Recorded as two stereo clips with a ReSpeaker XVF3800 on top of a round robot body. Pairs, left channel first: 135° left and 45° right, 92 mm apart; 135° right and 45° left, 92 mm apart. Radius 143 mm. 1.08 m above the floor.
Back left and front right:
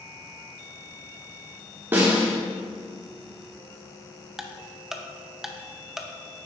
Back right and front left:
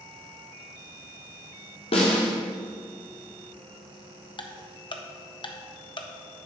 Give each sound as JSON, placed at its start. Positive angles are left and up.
{"t": 1.9, "sound": "a snare drum", "azimuth_deg": -115, "distance_m": 1.3}
{"t": 4.4, "sound": "ticking", "azimuth_deg": -130, "distance_m": 1.0}